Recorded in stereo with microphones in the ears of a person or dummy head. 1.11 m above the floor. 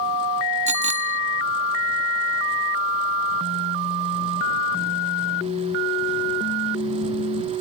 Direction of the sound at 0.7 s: 40° right (ahead or behind).